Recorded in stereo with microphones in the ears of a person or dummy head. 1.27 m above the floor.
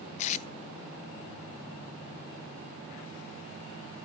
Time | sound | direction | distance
0.2 | tape being pulled | 40° left (ahead or behind) | 0.6 m